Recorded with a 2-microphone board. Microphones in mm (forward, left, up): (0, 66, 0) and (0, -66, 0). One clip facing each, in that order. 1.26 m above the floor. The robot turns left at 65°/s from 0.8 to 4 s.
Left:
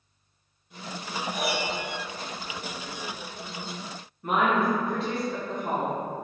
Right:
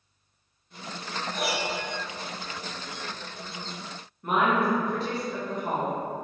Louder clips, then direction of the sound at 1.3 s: Even; 15° left (ahead or behind).